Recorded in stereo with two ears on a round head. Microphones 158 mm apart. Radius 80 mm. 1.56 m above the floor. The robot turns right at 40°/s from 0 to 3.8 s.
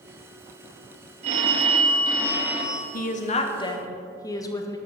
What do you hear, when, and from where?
1.2 s a phone ringing: 65° right, 1.1 m; by 2.8 s straight ahead, 1.1 m
2.9 s a woman speaking: 125° left, 0.9 m; by 4.8 s 160° left, 0.9 m